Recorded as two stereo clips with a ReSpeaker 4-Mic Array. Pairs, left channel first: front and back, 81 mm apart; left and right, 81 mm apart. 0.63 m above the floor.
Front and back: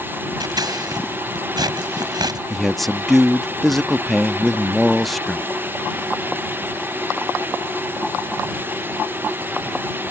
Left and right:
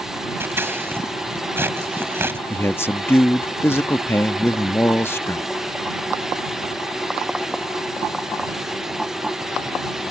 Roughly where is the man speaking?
Left.